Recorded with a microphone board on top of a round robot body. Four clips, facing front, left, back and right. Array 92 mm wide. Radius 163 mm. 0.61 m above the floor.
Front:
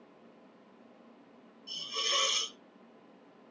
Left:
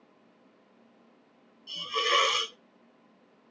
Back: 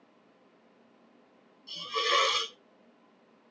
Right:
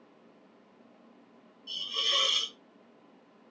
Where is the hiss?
130° left, 0.5 m.